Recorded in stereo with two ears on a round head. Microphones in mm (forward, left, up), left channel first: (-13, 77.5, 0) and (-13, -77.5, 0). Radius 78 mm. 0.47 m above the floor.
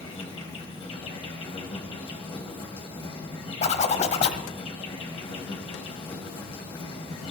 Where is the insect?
35° left (ahead or behind), 1.9 m.